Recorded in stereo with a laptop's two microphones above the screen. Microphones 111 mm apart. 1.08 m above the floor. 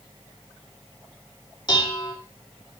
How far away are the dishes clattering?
About 1.5 m.